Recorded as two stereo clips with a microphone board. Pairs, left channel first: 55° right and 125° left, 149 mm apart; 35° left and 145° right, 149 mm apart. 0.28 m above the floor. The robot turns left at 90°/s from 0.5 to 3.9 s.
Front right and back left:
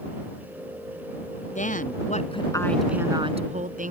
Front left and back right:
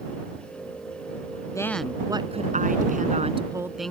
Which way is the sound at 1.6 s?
30° right.